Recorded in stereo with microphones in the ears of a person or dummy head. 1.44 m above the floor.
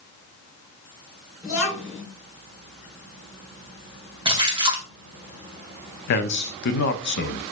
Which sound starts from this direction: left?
A man speaking, at 6.1 s.